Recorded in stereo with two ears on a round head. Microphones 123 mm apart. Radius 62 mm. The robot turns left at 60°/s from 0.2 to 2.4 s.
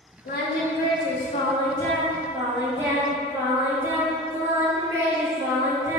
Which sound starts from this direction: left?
Singing, at 0.2 s.